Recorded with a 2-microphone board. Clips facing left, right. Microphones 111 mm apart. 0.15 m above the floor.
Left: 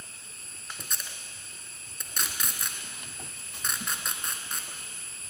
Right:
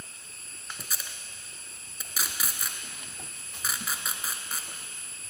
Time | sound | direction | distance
0.8 | tape being pulled | 5° right (ahead or behind) | 0.9 m